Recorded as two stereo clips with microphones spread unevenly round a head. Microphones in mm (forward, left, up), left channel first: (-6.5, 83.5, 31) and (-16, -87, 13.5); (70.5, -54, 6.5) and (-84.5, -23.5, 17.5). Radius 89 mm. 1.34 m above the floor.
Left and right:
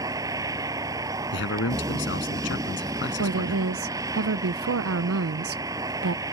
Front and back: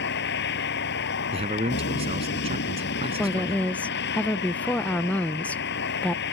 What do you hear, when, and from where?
0.0 s a vehicle: 20° right
1.3 s a man speaking: 110° left
3.2 s a woman speaking: 95° right